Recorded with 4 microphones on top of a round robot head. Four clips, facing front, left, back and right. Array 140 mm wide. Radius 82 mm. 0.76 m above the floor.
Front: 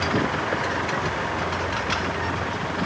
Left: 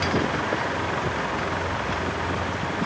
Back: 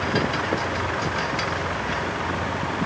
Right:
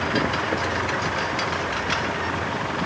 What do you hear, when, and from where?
Only background noise.